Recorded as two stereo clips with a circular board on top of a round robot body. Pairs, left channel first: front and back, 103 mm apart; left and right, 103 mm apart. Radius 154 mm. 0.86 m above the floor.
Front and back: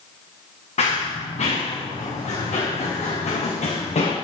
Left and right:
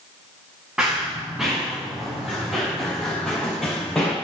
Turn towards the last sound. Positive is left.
turn(degrees=5)